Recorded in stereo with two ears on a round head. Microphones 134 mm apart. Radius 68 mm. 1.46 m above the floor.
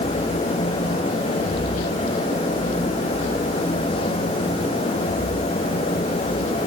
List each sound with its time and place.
Only background noise.